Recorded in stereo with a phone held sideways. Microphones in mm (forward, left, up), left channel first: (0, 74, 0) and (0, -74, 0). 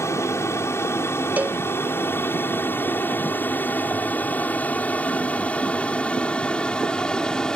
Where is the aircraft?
20° left (ahead or behind); by 7.6 s 5° left (ahead or behind).